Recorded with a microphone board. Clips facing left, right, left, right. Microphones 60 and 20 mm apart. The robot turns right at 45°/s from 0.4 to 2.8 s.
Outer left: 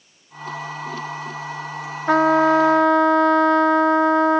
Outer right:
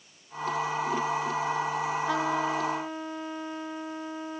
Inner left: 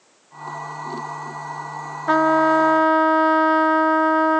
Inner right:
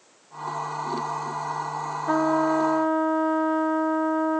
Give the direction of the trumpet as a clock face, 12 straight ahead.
10 o'clock.